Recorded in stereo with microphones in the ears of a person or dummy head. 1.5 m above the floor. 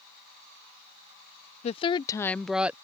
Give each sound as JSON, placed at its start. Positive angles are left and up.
{"t": 1.6, "sound": "a woman speaking", "side_deg": 40}